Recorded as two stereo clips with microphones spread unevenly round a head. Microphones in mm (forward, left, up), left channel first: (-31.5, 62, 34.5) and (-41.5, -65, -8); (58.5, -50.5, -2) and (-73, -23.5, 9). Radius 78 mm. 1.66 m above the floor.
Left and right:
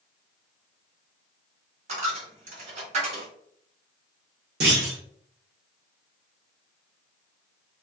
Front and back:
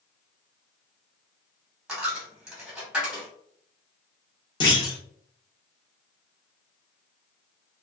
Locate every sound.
1.9 s a dropped coin: 120° right, 1.3 m
4.6 s a clunk: 65° right, 1.1 m